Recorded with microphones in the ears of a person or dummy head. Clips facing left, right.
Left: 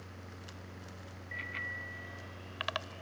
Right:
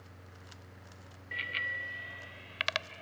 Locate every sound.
1.3 s a bicycle bell: 45° right (ahead or behind); by 3.0 s 30° right (ahead or behind)